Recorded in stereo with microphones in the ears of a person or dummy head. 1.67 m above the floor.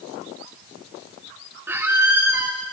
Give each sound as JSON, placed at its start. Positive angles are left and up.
{"t": 1.7, "sound": "a squeak", "side_deg": -5, "distance_m": 1.0}